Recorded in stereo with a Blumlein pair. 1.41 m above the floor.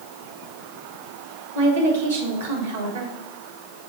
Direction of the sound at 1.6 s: 70° right.